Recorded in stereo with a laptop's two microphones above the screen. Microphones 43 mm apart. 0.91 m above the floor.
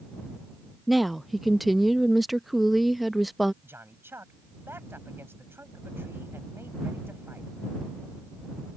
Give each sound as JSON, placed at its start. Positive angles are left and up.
{"t": 0.9, "sound": "a woman speaking", "side_deg": 0}
{"t": 3.6, "sound": "a man speaking", "side_deg": -70}